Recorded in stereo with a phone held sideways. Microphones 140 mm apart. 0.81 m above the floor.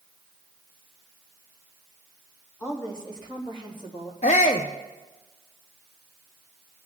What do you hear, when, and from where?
2.6 s a woman speaking: 25° left (ahead or behind), 3.5 m; by 4.1 s 45° left (ahead or behind), 3.5 m
4.2 s a shout: 60° left (ahead or behind), 0.6 m